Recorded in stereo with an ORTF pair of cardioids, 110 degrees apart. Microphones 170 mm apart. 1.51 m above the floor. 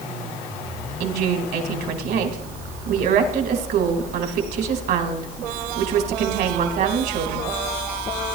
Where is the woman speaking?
70° right, 2 m.